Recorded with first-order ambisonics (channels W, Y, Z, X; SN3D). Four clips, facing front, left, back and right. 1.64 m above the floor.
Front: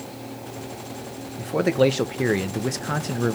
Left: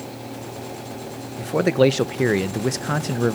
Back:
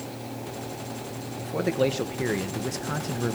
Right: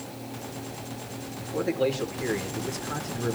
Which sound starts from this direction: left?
A man speaking, at 1.4 s.